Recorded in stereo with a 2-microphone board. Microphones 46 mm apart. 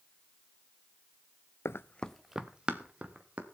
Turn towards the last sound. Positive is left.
turn(degrees=-30)  # may be behind; listen again after turning